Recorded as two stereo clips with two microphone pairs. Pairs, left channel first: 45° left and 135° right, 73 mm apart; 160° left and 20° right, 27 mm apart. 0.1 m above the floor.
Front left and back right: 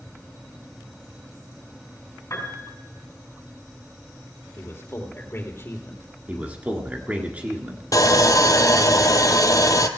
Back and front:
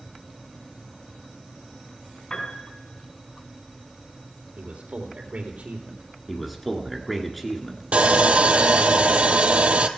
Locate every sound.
2.3 s a piano: 90° left, 5.5 m
4.6 s a man speaking: 5° right, 3.5 m
6.3 s a man speaking: 130° right, 1.8 m
7.9 s sawing: 10° left, 0.9 m